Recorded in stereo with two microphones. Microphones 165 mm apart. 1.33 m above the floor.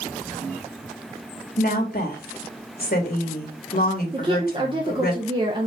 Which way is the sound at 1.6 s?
70° left (ahead or behind).